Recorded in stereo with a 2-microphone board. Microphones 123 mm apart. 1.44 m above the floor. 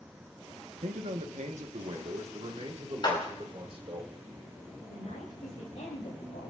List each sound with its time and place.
0.8 s a man speaking: 80° right, 1.1 m; by 4.0 s 45° right (ahead or behind), 2.5 m
3.0 s a clap: 40° left (ahead or behind), 5 m
4.9 s a woman speaking: 80° left, 3.5 m